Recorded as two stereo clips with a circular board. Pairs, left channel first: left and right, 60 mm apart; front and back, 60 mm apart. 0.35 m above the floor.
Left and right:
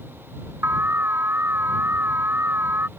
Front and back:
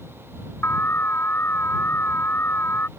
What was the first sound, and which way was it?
An alarm, 45° right.